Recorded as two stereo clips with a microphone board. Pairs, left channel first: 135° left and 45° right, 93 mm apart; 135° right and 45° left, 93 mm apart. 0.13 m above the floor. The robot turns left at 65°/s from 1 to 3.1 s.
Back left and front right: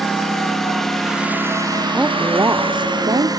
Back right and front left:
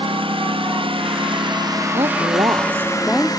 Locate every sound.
0.0 s a lawn mower: 50° left; by 3.4 s 90° right
1.9 s a woman speaking: 35° left; by 3.3 s 40° right